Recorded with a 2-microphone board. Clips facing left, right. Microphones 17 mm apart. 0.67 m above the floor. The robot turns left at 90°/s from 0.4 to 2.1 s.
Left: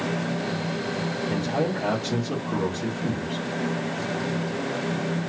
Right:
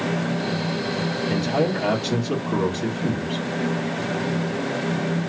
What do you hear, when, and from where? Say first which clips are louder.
1.3 s a man speaking: right 4 dB; 90° right, 1.6 m; by 3.5 s 160° right, 1.6 m